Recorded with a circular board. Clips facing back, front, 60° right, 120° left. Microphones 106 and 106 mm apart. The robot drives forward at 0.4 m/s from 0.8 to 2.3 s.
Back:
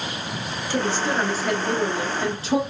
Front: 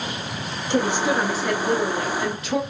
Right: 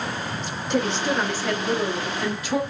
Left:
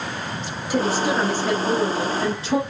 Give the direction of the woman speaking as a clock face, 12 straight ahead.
11 o'clock.